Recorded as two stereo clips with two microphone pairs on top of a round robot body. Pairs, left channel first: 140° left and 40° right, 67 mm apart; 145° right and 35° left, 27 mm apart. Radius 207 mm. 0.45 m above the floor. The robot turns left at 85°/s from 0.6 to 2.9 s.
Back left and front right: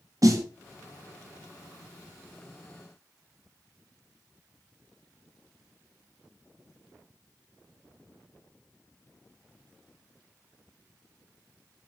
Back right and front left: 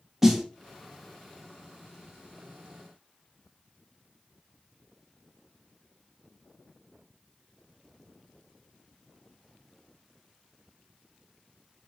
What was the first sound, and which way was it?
A snare drum, 45° right.